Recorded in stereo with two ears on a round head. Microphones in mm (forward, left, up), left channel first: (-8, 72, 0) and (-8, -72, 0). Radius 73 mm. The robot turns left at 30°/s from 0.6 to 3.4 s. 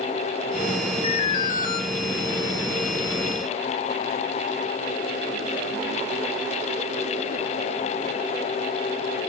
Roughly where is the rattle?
I don't hear a rattle.